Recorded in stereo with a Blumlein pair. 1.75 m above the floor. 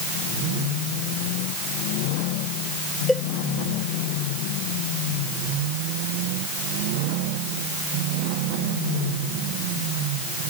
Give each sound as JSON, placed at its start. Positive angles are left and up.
{"t": 3.1, "sound": "a cowbell", "azimuth_deg": 5}